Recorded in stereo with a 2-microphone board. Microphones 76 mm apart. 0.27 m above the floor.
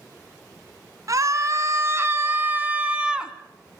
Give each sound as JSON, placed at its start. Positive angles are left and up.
{"t": 1.1, "sound": "a scream", "side_deg": -50, "distance_m": 2.5}